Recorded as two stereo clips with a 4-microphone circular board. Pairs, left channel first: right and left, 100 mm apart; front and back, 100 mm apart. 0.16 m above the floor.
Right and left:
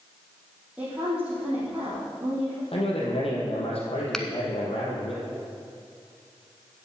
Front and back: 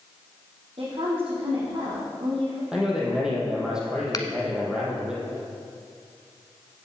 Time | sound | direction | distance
0.8 | a woman speaking | 165° left | 4.5 m
2.7 | a man speaking | 100° right | 4.5 m
4.1 | a finger snap | 10° right | 1.0 m